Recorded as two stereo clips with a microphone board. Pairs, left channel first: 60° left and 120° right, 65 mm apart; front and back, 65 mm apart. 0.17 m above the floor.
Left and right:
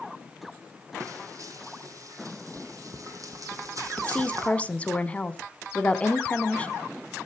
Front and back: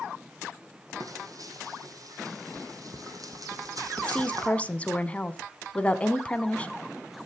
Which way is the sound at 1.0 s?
155° right.